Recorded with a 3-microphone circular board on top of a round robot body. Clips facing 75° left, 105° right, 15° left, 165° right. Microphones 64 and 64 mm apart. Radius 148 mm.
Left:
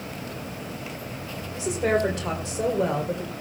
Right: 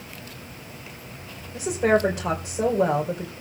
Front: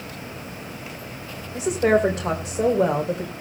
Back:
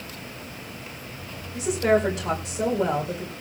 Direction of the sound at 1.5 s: 35° right.